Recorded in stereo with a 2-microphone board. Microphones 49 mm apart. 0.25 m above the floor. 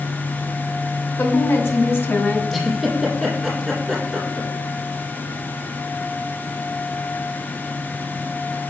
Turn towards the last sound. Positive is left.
turn(degrees=0)  # may be behind; listen again after turning